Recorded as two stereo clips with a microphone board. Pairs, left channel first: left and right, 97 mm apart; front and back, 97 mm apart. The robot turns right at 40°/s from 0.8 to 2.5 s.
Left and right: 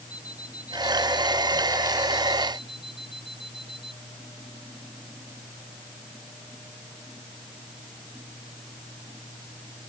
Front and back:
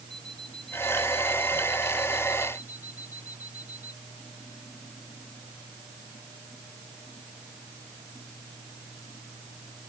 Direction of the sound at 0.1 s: 15° right.